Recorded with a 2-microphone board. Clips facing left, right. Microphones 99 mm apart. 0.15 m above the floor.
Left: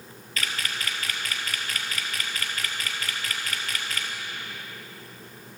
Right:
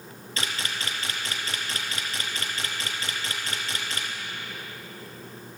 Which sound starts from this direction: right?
A camera shutter, at 0.4 s.